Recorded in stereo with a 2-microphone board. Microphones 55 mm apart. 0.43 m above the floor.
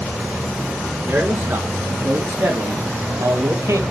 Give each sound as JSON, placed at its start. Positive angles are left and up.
{"t": 1.1, "sound": "a man speaking", "side_deg": -50, "distance_m": 4.5}